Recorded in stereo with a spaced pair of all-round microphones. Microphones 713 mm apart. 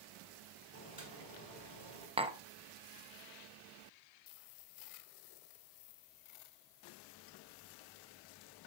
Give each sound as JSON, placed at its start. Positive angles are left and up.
{"t": 0.7, "sound": "boiling", "side_deg": -30, "distance_m": 5.5}
{"t": 2.2, "sound": "tapping", "side_deg": -10, "distance_m": 0.8}